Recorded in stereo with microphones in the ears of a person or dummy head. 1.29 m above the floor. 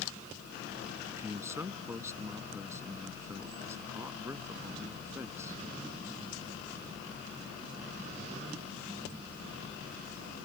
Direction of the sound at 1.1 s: 20° right (ahead or behind).